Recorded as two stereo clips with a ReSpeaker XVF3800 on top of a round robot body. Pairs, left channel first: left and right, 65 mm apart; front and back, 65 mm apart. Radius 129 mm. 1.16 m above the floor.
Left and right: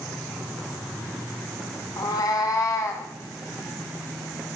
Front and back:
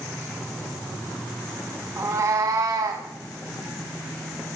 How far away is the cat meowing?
About 4 m.